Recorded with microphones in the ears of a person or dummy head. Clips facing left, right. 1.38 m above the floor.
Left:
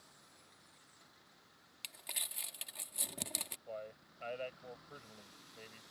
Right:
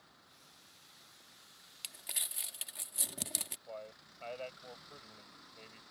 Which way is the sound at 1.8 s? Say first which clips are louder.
Even; 10° right (ahead or behind).